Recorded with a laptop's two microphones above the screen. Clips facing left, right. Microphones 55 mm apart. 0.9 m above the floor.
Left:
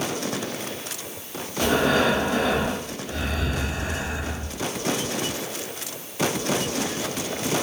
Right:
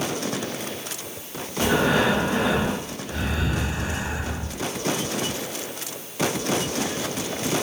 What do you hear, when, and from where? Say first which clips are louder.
1.6 s breathing: even; 20° right (ahead or behind), 2 m